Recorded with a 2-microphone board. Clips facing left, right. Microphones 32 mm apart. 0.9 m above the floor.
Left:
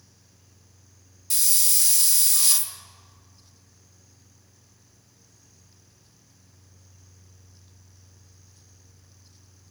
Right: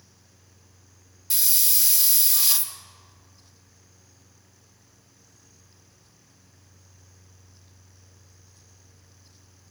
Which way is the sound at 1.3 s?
5° right (ahead or behind).